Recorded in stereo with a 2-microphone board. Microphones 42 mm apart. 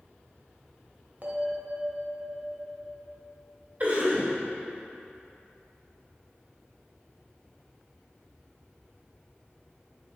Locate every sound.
1.2 s a bell: 40° right (ahead or behind), 1.1 m
3.8 s a cough: 35° right (ahead or behind), 1.9 m